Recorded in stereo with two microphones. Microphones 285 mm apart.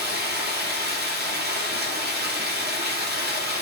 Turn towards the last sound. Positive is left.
turn(degrees=-35)  # may be behind; listen again after turning